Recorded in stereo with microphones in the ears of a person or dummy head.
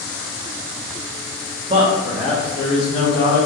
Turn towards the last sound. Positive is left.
turn(degrees=60)  # may be behind; listen again after turning